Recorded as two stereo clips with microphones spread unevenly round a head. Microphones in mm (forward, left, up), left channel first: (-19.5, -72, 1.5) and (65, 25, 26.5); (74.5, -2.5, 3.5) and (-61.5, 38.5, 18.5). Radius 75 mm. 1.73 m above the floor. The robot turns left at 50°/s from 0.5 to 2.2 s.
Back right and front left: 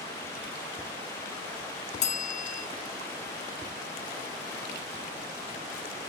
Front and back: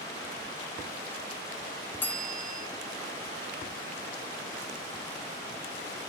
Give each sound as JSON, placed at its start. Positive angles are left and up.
{"t": 2.0, "sound": "a bell", "azimuth_deg": -95, "distance_m": 0.8}